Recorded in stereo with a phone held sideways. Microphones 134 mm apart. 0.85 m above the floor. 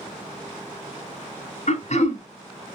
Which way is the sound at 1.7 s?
60° left (ahead or behind).